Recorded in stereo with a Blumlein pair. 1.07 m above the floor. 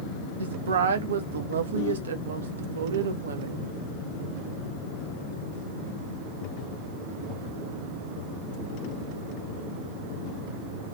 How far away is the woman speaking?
About 0.9 m.